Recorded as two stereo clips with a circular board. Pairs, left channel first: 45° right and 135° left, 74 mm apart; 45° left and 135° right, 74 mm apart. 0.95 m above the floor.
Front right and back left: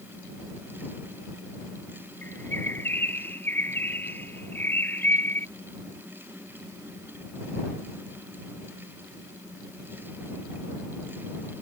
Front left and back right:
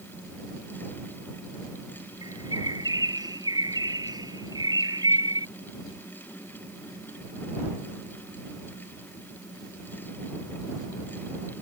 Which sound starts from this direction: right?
A bird, at 2.2 s.